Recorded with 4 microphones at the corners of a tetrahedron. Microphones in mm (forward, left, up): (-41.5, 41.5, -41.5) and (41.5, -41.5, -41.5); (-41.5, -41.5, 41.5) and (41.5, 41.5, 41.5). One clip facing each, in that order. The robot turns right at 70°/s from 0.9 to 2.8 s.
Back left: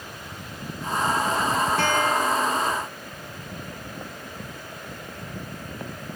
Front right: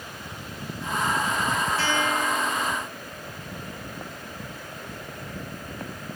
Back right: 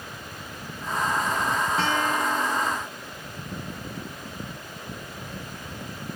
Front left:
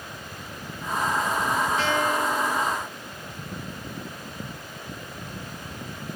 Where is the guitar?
170° left, 7.5 m; by 2.8 s 120° right, 7.5 m.